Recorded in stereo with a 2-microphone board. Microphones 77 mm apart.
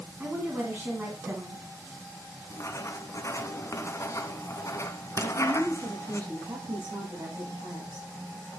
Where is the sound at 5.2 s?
60° right (ahead or behind), 6 m.